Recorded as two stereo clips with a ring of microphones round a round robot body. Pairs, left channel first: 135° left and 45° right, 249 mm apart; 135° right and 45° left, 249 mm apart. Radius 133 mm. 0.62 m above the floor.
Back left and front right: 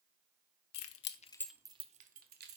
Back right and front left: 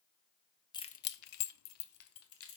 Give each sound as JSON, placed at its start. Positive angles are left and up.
{"t": 0.7, "sound": "keys jangling", "azimuth_deg": 150, "distance_m": 0.8}